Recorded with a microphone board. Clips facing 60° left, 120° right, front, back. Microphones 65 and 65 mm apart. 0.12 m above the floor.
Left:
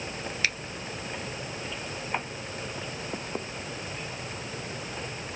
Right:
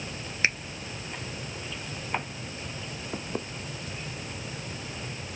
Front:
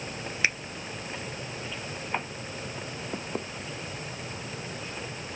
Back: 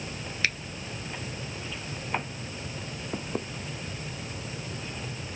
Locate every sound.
0.4 s a finger snap: 65° right